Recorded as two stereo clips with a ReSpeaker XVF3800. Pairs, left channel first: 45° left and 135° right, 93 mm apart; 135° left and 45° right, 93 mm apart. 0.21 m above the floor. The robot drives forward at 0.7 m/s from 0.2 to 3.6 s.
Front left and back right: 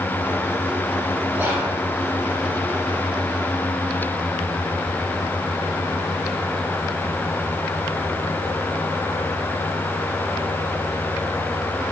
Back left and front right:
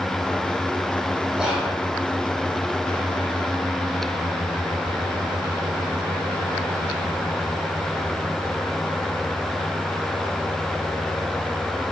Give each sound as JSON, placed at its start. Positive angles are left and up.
{"t": 1.4, "sound": "whispering", "azimuth_deg": -110, "distance_m": 1.0}